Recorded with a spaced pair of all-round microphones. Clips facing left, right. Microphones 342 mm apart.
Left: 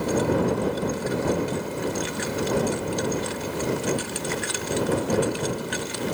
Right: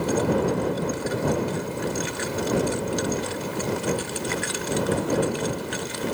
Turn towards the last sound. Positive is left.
No sound to turn to.